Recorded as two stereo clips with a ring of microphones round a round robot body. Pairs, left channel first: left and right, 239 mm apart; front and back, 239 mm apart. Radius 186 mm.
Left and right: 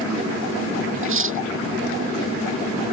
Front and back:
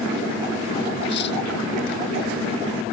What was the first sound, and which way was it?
Cutlery clinking, 60° right.